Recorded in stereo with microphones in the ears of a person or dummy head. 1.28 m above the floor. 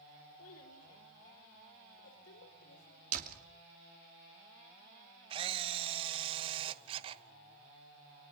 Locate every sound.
0.4 s a child speaking: 70° left (ahead or behind), 3 m; by 3.0 s 90° left, 4 m
3.1 s a door slam: 45° right (ahead or behind), 2.5 m
5.3 s a camera shutter: 30° right (ahead or behind), 1.0 m